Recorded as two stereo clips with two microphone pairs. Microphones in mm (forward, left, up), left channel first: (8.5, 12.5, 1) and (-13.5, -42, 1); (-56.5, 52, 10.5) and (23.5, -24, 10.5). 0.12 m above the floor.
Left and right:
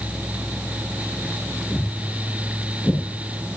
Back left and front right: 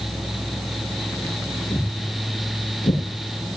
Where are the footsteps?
140° left, 9.5 m; by 3.0 s 135° left, 8.5 m.